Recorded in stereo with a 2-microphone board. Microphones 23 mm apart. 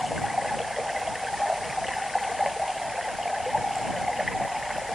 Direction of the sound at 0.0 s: 5° right (ahead or behind).